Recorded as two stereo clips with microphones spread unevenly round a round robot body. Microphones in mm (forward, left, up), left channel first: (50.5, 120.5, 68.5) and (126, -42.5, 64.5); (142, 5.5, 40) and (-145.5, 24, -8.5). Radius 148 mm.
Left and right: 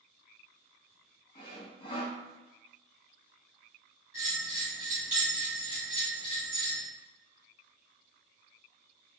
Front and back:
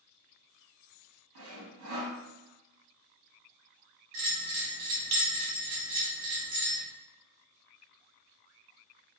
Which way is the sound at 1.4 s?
175° left.